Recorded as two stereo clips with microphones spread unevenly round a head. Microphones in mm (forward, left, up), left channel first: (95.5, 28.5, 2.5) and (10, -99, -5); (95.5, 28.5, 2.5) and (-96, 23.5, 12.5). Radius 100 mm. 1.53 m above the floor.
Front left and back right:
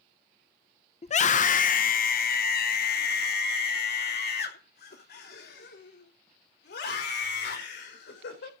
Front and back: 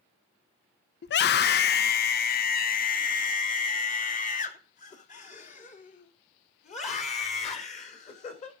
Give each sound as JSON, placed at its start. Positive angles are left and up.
{"t": 1.0, "sound": "a scream", "azimuth_deg": 20, "distance_m": 0.7}